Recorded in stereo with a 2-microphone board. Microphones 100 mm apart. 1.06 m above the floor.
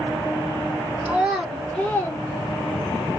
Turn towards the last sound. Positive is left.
turn(degrees=65)  # may be behind; listen again after turning